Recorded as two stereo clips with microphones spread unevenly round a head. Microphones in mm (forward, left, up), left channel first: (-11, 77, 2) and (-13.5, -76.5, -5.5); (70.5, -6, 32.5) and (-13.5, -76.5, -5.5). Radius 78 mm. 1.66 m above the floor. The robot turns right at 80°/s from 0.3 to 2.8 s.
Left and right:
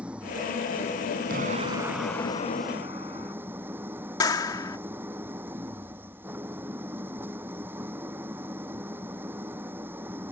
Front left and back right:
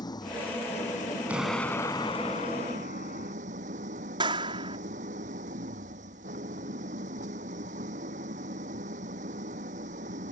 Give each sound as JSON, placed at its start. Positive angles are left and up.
{"t": 0.0, "sound": "an engine running", "azimuth_deg": -10}
{"t": 1.3, "sound": "an explosion", "azimuth_deg": -60}
{"t": 4.2, "sound": "a clap", "azimuth_deg": 150}